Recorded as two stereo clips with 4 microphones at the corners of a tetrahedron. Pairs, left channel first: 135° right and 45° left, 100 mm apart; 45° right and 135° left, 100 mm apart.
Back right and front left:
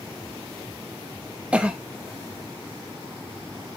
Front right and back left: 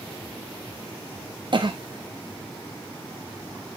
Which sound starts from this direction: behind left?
A cough, at 1.5 s.